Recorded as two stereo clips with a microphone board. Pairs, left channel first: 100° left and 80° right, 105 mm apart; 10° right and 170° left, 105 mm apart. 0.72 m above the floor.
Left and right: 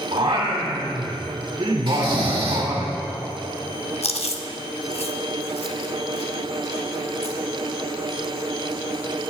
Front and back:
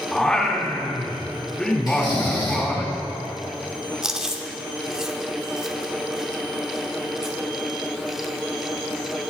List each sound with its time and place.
0.1 s singing: 90° right, 2.5 m
1.9 s snoring: 55° right, 2 m
4.0 s chewing: 85° left, 0.8 m